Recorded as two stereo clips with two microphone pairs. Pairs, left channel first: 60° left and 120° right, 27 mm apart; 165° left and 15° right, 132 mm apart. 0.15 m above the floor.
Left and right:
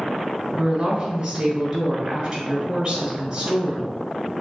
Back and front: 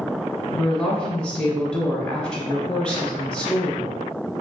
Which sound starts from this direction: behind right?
A woman speaking, at 0.6 s.